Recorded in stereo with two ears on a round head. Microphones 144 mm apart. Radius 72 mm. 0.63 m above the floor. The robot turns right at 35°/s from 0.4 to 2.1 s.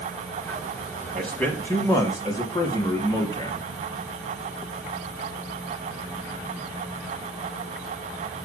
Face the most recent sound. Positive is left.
turn(degrees=35)